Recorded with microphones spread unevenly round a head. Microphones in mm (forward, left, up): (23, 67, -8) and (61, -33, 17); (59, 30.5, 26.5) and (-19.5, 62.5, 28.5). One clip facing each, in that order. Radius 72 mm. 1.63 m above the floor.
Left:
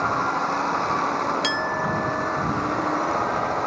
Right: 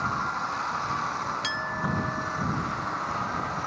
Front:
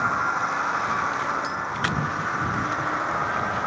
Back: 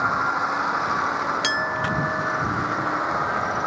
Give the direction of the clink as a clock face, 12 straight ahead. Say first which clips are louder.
Left 6 dB, back 3 dB; 6 o'clock.